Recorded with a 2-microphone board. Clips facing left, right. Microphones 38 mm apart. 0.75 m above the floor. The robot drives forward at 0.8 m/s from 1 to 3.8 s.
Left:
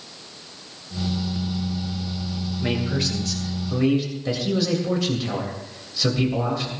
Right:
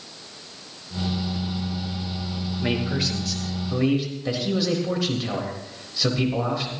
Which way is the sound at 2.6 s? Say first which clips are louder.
Even; 5° right (ahead or behind).